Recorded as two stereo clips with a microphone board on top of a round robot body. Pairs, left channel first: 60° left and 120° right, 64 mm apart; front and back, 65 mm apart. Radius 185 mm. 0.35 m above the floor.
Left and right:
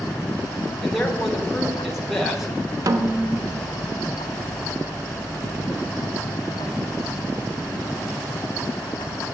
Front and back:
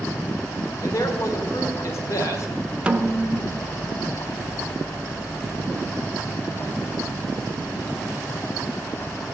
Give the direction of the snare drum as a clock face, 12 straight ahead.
4 o'clock.